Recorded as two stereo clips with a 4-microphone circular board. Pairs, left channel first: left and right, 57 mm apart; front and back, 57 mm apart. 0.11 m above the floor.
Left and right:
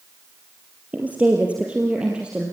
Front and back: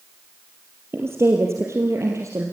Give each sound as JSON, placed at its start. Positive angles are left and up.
{"t": 0.9, "sound": "a woman speaking", "azimuth_deg": -150, "distance_m": 3.0}